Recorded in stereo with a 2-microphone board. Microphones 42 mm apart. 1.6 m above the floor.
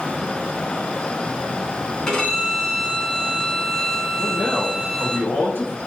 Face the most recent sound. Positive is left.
turn(degrees=55)  # may be behind; listen again after turning